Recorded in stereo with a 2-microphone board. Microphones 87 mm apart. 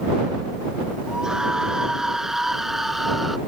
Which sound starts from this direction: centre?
A scream, at 1.1 s.